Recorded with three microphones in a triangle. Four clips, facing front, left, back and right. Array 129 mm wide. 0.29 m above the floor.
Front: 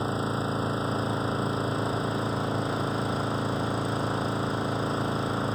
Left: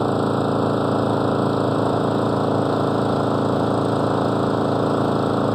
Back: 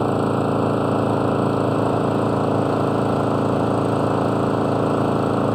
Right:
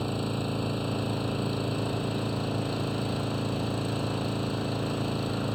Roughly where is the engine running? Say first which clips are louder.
Left 12 dB, back 10 dB; behind left.